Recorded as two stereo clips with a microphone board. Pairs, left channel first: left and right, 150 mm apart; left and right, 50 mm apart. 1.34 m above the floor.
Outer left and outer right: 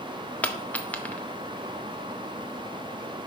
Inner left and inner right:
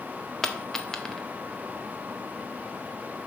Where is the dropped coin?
10° left (ahead or behind), 0.6 m.